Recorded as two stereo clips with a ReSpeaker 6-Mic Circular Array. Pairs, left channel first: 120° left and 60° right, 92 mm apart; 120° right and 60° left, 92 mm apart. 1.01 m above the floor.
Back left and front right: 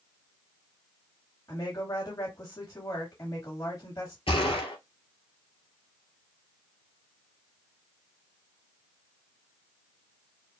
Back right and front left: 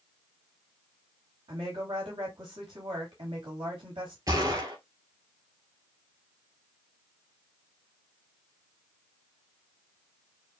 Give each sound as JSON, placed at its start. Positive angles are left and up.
{"t": 1.5, "sound": "a woman speaking", "azimuth_deg": 65, "distance_m": 2.5}
{"t": 4.3, "sound": "a gunshot", "azimuth_deg": 105, "distance_m": 2.5}